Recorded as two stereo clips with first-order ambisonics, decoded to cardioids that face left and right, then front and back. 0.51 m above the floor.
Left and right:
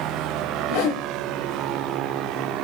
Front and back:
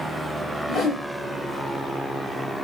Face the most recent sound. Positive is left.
turn(degrees=85)